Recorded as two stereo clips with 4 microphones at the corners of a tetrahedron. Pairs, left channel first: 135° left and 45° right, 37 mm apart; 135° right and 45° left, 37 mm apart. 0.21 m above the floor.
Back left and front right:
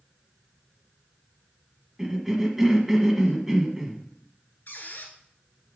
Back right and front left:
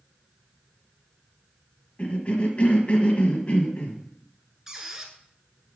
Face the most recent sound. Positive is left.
turn(degrees=120)